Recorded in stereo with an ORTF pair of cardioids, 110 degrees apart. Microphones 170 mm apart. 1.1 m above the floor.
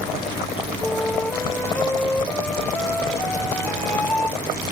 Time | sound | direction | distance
0.8 | a flute | 10° left | ?